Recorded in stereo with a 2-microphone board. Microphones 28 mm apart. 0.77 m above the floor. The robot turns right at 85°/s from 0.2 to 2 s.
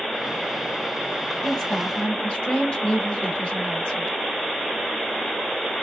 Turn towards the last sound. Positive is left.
turn(degrees=70)